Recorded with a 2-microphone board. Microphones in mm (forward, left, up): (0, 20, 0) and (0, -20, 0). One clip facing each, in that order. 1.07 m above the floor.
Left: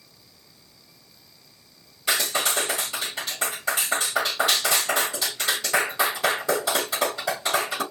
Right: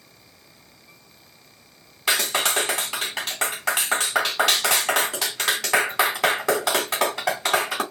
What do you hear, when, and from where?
2.1 s a clap: 75° right (ahead or behind), 3 m